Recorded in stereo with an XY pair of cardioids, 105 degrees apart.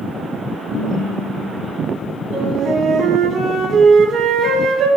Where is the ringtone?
60° left, 3 m.